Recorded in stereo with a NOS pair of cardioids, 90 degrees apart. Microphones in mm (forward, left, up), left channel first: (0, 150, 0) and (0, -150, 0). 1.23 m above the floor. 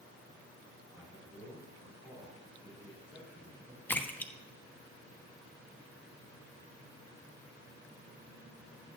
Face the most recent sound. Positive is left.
turn(degrees=5)